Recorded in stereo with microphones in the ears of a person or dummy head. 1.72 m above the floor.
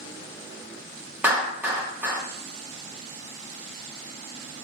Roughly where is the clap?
Centre.